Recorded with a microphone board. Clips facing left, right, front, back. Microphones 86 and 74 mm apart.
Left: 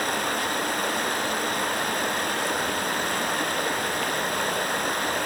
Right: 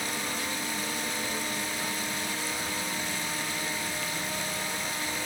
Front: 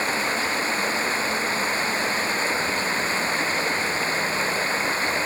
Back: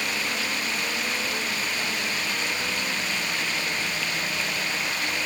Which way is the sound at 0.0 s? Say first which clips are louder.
Left 8 dB, front 5 dB; 60° left.